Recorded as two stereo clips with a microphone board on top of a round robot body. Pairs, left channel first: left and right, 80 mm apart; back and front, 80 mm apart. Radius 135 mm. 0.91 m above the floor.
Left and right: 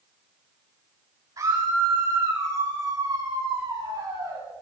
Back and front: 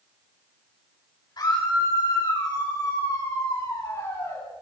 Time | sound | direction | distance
1.4 | a scream | 135° right | 9 m